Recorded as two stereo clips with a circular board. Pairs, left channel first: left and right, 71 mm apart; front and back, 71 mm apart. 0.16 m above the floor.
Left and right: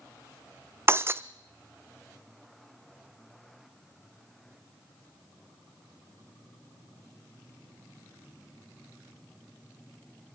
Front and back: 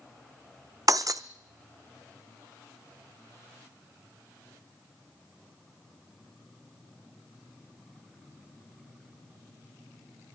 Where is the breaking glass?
145° right, 0.6 m.